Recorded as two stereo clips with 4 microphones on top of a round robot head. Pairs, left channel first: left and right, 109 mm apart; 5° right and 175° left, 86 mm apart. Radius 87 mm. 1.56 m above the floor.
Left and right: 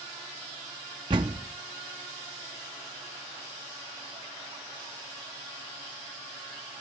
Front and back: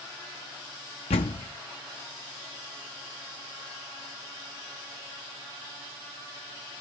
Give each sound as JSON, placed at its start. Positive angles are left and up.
{"t": 1.1, "sound": "a door slam", "azimuth_deg": -30, "distance_m": 0.8}